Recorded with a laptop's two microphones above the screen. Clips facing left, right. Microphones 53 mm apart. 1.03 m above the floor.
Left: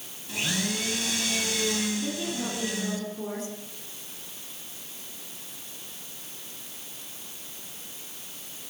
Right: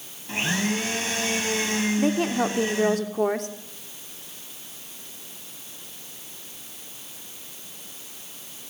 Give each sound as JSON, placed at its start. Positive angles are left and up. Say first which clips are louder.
{"t": 0.3, "sound": "a blender", "louder": "right 5 dB", "side_deg": -35, "distance_m": 6.5}
{"t": 2.0, "sound": "a woman speaking", "louder": "right 9 dB", "side_deg": -70, "distance_m": 3.0}